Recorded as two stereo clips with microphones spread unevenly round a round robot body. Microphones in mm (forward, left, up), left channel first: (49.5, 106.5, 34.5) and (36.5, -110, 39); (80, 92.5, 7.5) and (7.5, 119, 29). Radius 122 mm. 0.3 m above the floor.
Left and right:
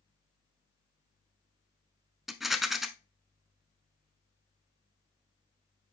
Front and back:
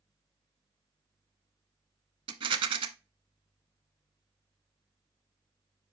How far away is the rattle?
About 0.6 m.